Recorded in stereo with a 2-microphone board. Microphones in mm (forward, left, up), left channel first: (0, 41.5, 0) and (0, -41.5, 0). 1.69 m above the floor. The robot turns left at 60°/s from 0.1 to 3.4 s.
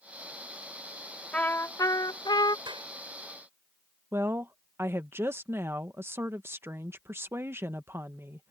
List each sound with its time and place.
1.3 s a trumpet: 165° left; by 2.6 s 90° left
2.7 s a clap: 70° right (ahead or behind); by 2.9 s 85° right
4.1 s a woman speaking: 30° right (ahead or behind)